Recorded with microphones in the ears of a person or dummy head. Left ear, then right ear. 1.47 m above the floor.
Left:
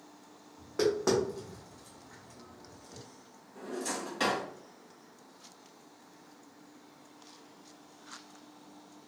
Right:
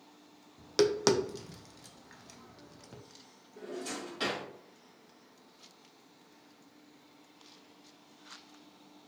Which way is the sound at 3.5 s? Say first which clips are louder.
Left 3 dB; 10° left (ahead or behind).